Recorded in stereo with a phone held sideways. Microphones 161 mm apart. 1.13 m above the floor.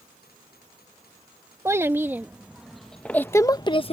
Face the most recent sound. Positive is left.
turn(degrees=40)  # may be behind; listen again after turning